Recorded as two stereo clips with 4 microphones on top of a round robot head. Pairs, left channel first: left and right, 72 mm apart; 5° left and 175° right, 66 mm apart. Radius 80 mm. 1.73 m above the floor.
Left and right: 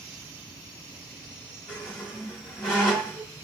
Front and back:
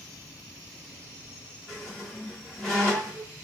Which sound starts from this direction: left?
A squeak, at 1.7 s.